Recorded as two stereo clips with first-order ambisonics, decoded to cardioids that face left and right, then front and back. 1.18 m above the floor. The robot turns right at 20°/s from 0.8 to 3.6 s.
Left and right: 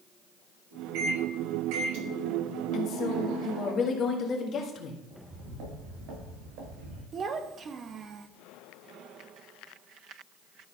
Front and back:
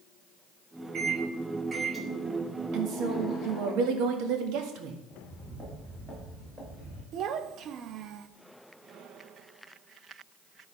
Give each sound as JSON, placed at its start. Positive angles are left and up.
{"t": 0.9, "sound": "a microwave", "azimuth_deg": -120, "distance_m": 1.4}
{"t": 2.7, "sound": "a woman speaking", "azimuth_deg": 135, "distance_m": 1.5}
{"t": 5.1, "sound": "footsteps", "azimuth_deg": -90, "distance_m": 5.5}
{"t": 7.1, "sound": "a child speaking", "azimuth_deg": -145, "distance_m": 0.6}